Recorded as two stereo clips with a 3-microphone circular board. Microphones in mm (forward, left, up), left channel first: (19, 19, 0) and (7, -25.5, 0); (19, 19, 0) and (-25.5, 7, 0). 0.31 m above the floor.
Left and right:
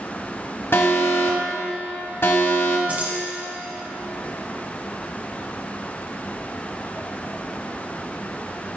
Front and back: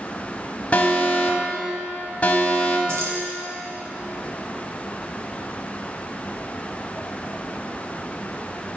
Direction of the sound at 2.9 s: 160° right.